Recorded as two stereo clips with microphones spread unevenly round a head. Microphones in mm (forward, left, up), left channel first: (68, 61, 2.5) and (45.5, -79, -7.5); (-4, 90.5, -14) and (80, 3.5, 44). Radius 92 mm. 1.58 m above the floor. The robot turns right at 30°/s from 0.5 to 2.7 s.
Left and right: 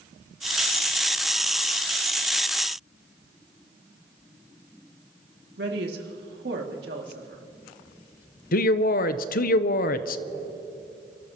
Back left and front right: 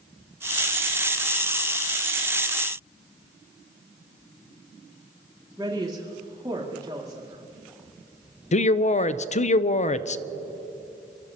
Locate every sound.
5.6 s a woman speaking: 120° right, 2 m
8.5 s a man speaking: 90° left, 0.6 m